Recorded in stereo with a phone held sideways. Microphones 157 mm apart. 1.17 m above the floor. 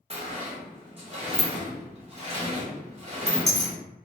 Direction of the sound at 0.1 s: 40° right (ahead or behind).